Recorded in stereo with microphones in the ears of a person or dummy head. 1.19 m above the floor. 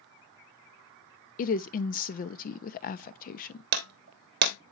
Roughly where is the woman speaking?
Left.